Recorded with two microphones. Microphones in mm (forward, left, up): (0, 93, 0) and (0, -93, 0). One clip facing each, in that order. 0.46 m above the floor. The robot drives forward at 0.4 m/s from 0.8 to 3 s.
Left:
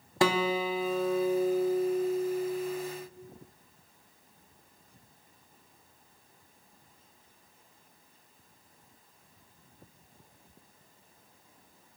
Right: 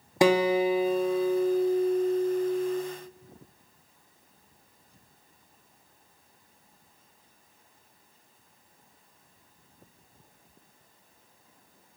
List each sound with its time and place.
0.2 s a guitar: 20° right (ahead or behind), 0.8 m; by 2.8 s 10° right (ahead or behind), 1.5 m